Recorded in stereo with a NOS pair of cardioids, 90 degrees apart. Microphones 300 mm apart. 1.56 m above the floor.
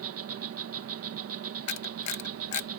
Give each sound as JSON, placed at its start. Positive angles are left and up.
{"t": 0.0, "sound": "an insect", "azimuth_deg": -55}
{"t": 1.7, "sound": "a camera shutter", "azimuth_deg": 65}